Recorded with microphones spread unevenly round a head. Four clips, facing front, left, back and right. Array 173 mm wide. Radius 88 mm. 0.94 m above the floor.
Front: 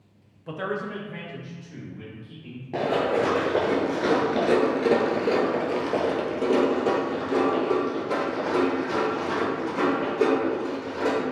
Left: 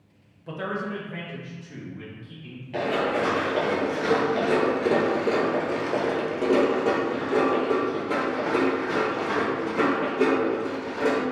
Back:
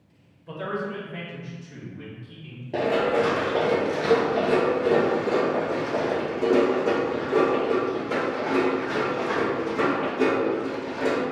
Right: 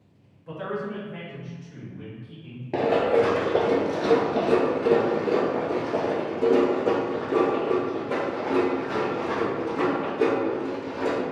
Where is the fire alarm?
I don't hear a fire alarm.